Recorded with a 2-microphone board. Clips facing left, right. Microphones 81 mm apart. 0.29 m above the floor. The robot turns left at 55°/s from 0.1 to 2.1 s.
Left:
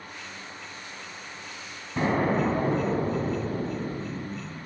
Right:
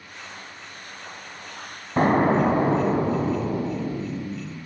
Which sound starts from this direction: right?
An explosion, at 2.0 s.